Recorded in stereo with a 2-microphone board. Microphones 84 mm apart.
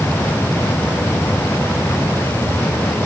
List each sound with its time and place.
Only background noise.